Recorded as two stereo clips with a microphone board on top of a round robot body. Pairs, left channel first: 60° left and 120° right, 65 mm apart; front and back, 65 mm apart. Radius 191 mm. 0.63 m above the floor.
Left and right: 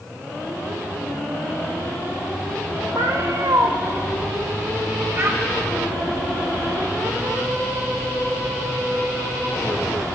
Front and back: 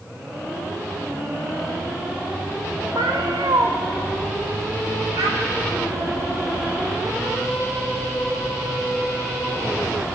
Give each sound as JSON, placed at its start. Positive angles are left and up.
{"t": 3.0, "sound": "a cat meowing", "azimuth_deg": -160, "distance_m": 0.6}
{"t": 5.2, "sound": "a child speaking", "azimuth_deg": -170, "distance_m": 2.5}